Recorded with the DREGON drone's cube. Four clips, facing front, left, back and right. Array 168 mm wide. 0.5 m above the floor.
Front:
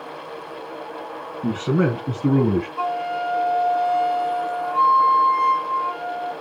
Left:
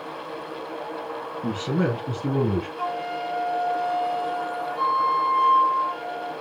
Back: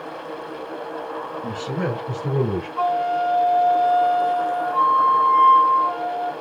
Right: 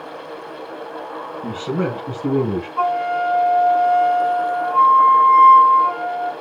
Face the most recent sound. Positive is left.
turn(degrees=-105)